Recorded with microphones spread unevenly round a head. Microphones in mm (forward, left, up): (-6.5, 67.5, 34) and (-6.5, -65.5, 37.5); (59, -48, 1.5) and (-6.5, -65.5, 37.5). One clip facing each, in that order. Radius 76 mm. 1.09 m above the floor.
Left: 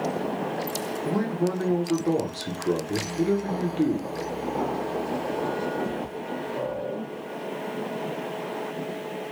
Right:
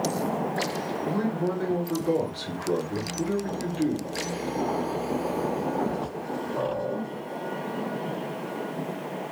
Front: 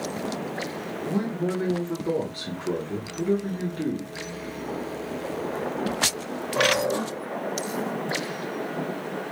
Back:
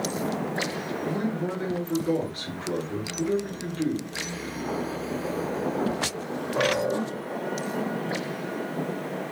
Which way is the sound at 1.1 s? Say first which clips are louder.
Left 2 dB, front 3 dB; 55° left.